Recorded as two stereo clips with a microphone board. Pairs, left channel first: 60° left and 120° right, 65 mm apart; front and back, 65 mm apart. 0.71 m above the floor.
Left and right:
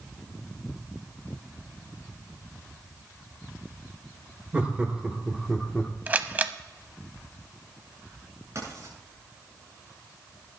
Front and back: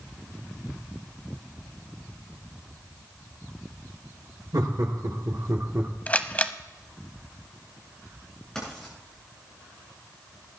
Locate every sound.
4.5 s laughter: 175° left, 2 m; by 5.9 s 130° left, 1.3 m
6.1 s a camera shutter: 60° right, 0.8 m
8.6 s writing: 80° right, 8 m